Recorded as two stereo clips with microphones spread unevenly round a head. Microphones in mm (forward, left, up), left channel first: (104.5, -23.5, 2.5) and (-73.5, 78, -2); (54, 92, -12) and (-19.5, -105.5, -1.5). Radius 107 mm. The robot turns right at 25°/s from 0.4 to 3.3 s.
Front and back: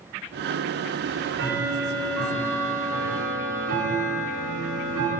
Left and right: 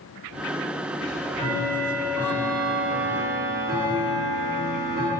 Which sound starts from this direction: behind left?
Ticking, at 1.0 s.